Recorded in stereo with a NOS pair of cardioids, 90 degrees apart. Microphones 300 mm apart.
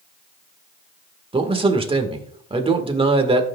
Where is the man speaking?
20° right, 1.8 m.